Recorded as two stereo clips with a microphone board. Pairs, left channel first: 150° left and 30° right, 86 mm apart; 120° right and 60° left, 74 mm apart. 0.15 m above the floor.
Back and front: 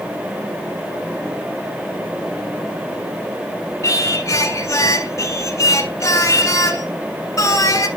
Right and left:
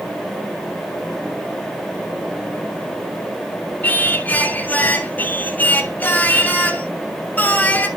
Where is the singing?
Straight behind, 1.4 m.